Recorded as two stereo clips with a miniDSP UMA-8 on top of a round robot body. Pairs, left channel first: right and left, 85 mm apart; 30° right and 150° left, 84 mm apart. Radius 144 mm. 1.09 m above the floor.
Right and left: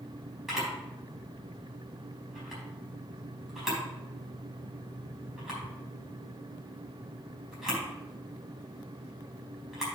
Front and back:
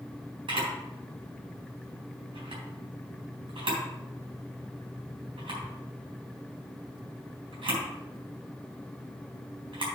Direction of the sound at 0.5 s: 175° left.